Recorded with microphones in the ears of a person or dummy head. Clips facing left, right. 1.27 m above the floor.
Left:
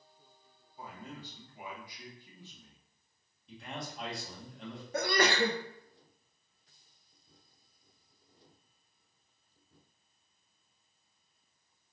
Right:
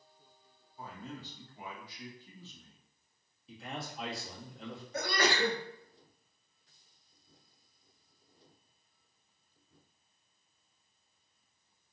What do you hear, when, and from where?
0.8 s a man speaking: 10° left (ahead or behind), 1.9 m
3.5 s a man speaking: 5° right (ahead or behind), 1.7 m
4.9 s a sneeze: 55° left (ahead or behind), 0.8 m